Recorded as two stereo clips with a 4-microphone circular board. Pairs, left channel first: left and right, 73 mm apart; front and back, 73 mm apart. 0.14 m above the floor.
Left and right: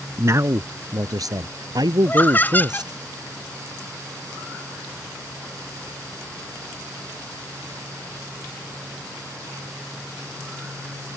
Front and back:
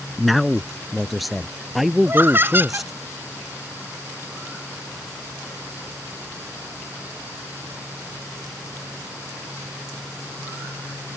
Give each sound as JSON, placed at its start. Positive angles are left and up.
{"t": 0.2, "sound": "a man speaking", "azimuth_deg": -90}
{"t": 2.0, "sound": "laughter", "azimuth_deg": 140}